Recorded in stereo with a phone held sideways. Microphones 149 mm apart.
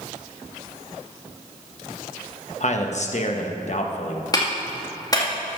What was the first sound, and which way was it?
A man speaking, 50° left (ahead or behind).